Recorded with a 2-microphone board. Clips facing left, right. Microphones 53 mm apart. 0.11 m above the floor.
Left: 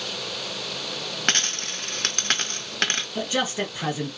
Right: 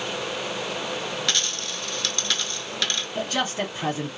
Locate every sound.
1.3 s a dropped coin: 45° left (ahead or behind), 0.5 m
3.1 s a man speaking: 10° left (ahead or behind), 1.2 m